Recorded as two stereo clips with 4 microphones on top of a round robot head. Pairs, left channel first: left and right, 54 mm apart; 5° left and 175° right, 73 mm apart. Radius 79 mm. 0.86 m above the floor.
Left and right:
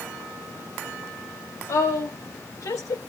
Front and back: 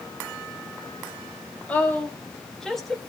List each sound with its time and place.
1.7 s a woman speaking: 75° left, 4.5 m; by 3.0 s 95° left, 3.5 m